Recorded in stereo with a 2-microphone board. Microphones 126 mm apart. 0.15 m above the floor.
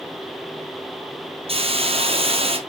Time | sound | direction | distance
1.5 | a hiss | 50° right (ahead or behind) | 1.5 m